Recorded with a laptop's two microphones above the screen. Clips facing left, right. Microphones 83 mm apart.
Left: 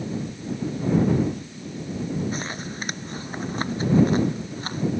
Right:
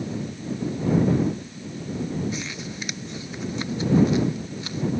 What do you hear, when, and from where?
2.3 s crumpling: 40° left (ahead or behind)